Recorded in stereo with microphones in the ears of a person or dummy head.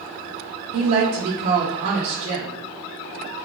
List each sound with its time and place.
0.7 s a woman speaking: 40° right (ahead or behind), 0.6 m